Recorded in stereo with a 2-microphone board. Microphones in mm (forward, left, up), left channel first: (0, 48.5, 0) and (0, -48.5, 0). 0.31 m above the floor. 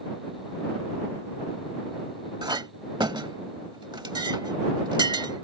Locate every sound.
2.4 s a clink: 55° right (ahead or behind)